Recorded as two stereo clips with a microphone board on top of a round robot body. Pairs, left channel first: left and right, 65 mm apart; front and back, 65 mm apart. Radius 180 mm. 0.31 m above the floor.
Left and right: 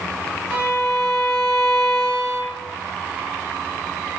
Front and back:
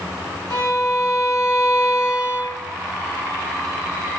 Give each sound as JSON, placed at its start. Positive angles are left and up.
{"t": 0.5, "sound": "a violin", "azimuth_deg": -20, "distance_m": 5.0}